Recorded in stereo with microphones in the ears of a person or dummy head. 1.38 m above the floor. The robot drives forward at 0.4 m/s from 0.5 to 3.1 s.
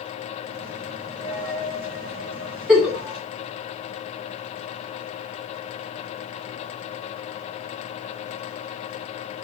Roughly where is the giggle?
Centre.